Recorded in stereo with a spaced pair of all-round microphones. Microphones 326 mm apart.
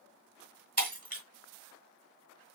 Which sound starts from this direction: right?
Breaking glass, at 0.8 s.